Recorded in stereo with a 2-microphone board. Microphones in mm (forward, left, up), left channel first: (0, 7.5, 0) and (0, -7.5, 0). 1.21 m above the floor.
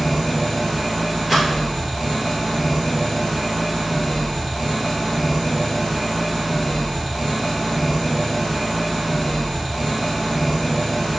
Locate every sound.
0.0 s an engine running: 5° right (ahead or behind), 1.8 m
1.3 s a rattle: 5° left (ahead or behind), 1.1 m